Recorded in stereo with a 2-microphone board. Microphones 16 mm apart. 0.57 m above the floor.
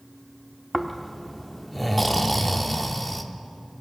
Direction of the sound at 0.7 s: 5° left (ahead or behind).